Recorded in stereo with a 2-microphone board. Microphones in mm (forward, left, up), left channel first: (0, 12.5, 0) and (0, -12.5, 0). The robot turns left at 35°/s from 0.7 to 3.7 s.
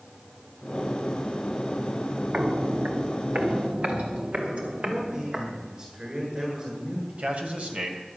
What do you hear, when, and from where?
2.3 s footsteps: 45° right (ahead or behind), 1.5 m; by 5.5 s 55° right (ahead or behind), 4.5 m
4.8 s a man speaking: 40° right (ahead or behind), 8 m
7.1 s a man speaking: 65° right (ahead or behind), 3 m